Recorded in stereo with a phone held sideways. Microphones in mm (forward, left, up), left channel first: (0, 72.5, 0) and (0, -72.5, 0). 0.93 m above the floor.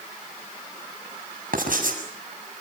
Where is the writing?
70° right (ahead or behind), 6.5 m.